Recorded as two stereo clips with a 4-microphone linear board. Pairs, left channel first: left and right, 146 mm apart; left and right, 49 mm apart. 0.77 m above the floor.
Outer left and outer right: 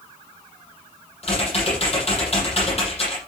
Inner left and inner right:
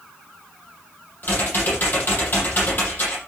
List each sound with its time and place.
1.2 s typing on a keyboard: 45° left (ahead or behind), 7.5 m